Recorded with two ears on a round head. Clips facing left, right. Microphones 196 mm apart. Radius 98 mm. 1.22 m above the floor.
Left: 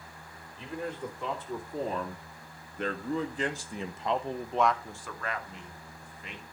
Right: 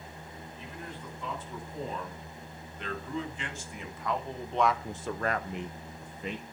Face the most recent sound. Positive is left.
turn(degrees=-80)